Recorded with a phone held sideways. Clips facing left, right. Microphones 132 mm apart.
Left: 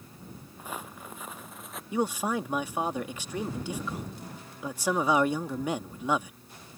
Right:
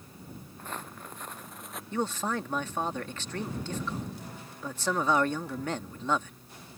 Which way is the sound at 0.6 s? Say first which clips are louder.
Left 1 dB; 10° left (ahead or behind).